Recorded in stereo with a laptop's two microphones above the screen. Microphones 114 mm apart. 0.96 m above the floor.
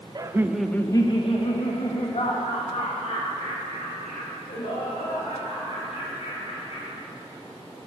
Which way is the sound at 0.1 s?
35° right (ahead or behind).